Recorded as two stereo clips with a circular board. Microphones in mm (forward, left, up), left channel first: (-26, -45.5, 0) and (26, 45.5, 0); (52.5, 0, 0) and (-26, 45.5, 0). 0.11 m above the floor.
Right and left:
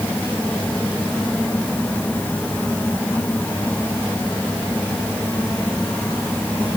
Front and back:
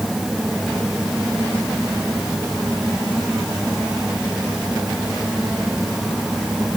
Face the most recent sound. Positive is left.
No sound to turn to.